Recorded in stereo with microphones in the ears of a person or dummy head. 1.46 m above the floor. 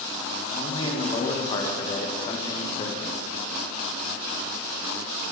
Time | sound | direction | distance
0.6 | a man speaking | 25° left (ahead or behind) | 1.7 m